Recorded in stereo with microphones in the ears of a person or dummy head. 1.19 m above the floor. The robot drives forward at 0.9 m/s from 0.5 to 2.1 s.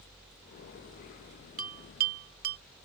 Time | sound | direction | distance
1.6 | a bell | 55° right (ahead or behind) | ?